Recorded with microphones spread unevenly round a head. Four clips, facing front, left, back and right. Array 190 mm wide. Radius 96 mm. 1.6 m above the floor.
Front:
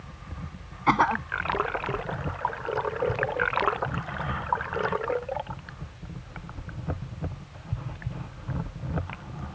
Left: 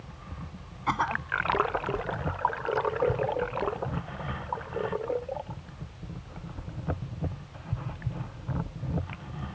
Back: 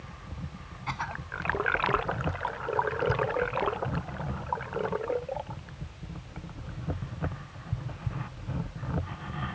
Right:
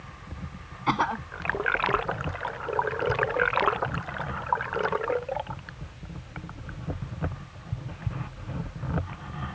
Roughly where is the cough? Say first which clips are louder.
Right 2 dB, front 13 dB; ahead right.